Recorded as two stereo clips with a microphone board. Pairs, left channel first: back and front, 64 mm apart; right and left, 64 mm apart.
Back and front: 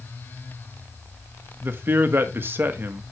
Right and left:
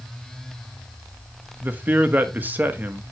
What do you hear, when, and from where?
1.6 s a man speaking: 40° left, 1.3 m